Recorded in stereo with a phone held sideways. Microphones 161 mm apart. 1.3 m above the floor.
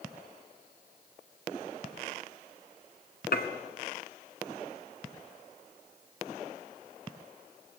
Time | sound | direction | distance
3.3 | dishes clattering | 70° left (ahead or behind) | 1.7 m